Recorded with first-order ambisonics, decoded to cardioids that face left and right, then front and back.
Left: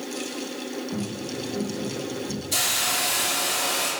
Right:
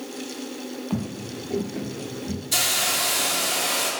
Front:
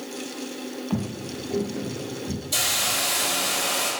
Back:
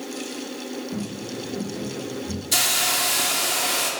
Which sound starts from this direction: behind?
A hiss, at 2.5 s.